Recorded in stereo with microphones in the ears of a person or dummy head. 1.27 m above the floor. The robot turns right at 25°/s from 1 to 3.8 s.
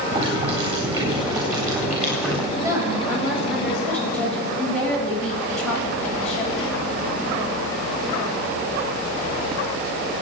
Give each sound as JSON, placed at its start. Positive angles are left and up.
{"t": 0.1, "sound": "boiling", "azimuth_deg": -30, "distance_m": 8.5}
{"t": 2.5, "sound": "a woman speaking", "azimuth_deg": -20, "distance_m": 7.5}